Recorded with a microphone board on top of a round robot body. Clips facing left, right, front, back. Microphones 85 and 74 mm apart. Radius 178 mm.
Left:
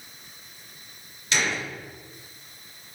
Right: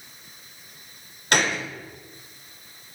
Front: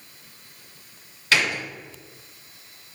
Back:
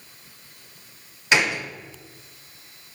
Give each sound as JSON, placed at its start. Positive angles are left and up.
{"t": 1.3, "sound": "a gunshot", "azimuth_deg": -110, "distance_m": 1.3}